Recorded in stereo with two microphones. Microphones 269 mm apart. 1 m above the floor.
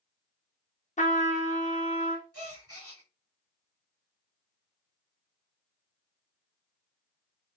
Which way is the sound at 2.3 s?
60° right (ahead or behind).